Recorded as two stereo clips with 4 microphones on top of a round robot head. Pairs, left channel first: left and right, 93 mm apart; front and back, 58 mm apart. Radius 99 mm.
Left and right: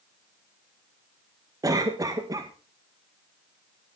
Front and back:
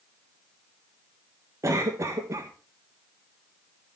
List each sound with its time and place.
1.6 s a cough: 140° right, 1.8 m